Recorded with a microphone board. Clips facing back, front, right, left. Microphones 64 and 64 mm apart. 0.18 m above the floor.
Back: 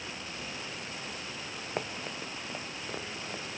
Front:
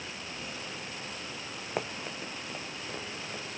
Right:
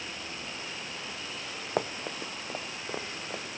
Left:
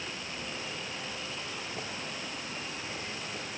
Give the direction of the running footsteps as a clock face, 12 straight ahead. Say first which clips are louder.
Front 1 dB, right 6 dB; 3 o'clock.